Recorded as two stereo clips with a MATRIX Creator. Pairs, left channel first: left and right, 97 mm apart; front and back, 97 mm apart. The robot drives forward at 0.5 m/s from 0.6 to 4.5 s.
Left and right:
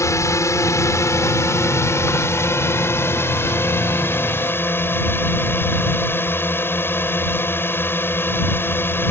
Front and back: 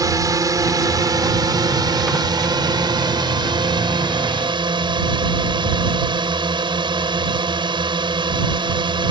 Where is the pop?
No pop in this recording.